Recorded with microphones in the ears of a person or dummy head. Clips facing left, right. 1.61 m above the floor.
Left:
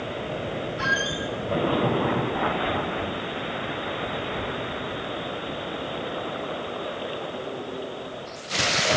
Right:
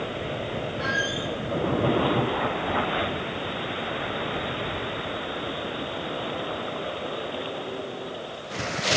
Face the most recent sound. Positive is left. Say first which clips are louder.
# even
turn(degrees=45)  # may be behind; listen again after turning